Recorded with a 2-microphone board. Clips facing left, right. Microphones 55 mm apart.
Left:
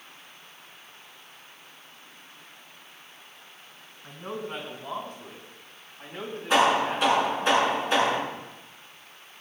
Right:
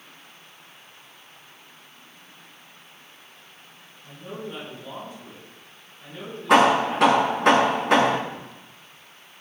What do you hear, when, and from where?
4.0 s a man speaking: 60° left (ahead or behind), 6 m; by 7.5 s 25° left (ahead or behind), 4 m
6.5 s hammering: 75° right (ahead or behind), 5.5 m